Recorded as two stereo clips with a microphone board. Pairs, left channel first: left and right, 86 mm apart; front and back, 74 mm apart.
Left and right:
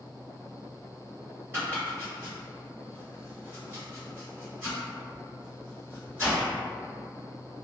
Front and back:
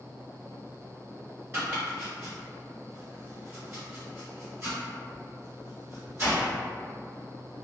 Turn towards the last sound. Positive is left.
turn(degrees=-140)